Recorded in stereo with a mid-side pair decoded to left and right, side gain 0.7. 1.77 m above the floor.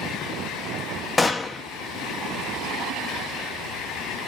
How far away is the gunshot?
About 1.3 m.